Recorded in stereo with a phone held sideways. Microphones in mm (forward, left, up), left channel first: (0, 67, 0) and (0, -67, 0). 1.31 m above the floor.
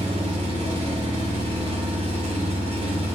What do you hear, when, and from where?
0.0 s an engine running: 50° right (ahead or behind), 1.5 m